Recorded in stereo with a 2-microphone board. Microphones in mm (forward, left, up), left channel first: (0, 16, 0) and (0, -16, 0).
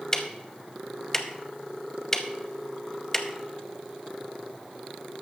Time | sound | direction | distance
0.1 | ticking | 20° left (ahead or behind) | 0.8 m